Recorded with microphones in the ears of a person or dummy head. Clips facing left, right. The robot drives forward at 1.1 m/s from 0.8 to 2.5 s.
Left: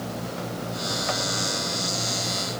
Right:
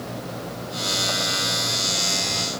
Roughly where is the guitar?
I don't hear a guitar.